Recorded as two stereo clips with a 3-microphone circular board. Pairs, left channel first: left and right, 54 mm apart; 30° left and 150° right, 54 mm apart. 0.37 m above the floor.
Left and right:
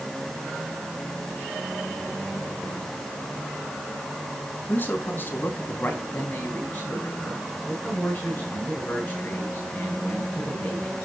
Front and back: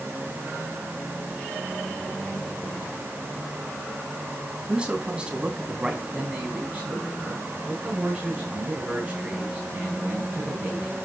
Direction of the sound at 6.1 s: 150° left.